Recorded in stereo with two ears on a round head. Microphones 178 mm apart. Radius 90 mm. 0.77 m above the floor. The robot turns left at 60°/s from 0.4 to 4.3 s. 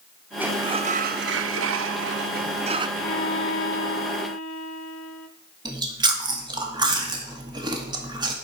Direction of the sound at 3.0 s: 150° left.